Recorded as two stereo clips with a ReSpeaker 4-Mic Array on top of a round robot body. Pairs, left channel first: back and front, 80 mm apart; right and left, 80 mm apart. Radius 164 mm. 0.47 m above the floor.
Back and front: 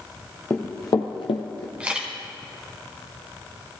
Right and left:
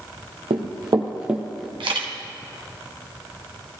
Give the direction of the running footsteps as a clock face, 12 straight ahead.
8 o'clock.